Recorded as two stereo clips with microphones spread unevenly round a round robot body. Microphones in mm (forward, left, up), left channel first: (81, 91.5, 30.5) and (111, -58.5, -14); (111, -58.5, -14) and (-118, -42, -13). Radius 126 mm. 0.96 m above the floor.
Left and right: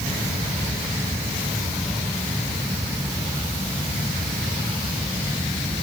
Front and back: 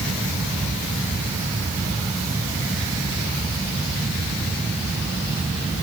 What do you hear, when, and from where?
Only background noise.